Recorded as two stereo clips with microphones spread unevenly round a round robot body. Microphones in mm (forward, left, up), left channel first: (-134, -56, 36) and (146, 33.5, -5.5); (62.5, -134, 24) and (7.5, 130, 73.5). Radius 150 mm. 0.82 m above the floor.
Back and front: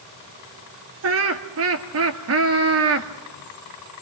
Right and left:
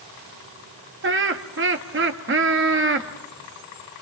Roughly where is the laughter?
Ahead left.